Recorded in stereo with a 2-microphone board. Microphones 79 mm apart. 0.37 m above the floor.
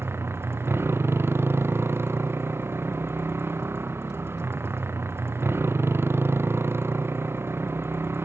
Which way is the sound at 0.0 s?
30° right (ahead or behind).